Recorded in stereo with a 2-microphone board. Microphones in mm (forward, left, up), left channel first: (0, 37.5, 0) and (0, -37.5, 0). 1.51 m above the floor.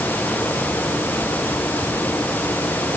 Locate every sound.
Only background noise.